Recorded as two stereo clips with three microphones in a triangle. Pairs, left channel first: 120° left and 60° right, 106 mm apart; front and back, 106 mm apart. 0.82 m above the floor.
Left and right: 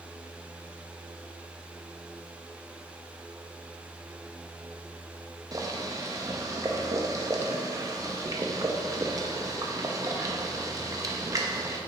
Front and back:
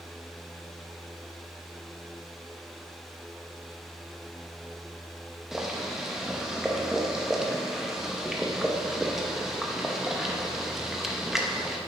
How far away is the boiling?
About 0.8 m.